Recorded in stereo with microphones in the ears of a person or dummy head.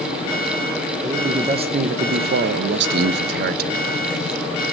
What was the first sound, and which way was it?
A man speaking, 15° right (ahead or behind).